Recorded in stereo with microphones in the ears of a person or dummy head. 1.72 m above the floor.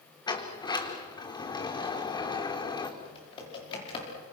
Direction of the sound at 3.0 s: 30° left (ahead or behind).